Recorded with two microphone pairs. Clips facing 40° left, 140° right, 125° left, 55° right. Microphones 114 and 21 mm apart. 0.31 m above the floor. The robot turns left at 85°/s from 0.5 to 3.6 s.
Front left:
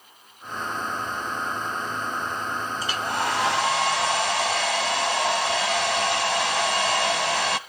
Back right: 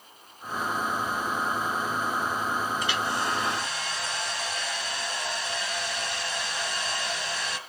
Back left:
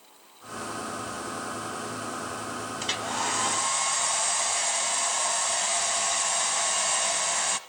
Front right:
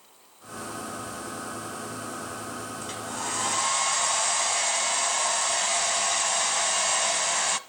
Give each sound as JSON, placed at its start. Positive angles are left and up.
{"t": 2.8, "sound": "a hair dryer", "azimuth_deg": 95, "distance_m": 0.6}